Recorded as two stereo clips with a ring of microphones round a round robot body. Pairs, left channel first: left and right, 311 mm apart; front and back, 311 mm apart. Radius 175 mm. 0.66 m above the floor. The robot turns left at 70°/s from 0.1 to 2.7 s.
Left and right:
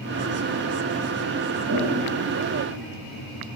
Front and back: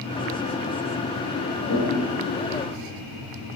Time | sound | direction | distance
1.7 | a toilet flushing | 45° right | 9.5 m